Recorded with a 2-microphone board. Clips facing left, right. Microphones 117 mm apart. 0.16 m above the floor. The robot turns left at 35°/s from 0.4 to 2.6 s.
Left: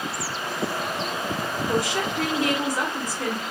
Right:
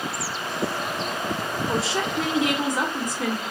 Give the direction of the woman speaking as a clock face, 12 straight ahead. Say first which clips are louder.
Left 1 dB; 4 o'clock.